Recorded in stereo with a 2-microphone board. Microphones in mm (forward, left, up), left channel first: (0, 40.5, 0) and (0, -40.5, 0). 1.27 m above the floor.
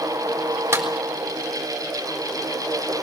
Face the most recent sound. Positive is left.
turn(degrees=-35)  # may be behind; listen again after turning